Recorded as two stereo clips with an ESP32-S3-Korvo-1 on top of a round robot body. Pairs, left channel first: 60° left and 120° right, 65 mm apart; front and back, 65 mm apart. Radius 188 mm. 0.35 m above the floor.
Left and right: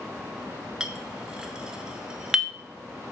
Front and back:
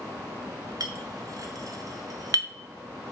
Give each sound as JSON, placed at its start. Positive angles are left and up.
{"t": 0.8, "sound": "a clink", "azimuth_deg": 160, "distance_m": 1.0}